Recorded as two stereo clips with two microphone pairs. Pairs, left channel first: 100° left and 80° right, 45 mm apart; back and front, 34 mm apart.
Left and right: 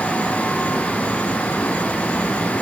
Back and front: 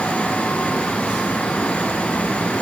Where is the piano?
I don't hear a piano.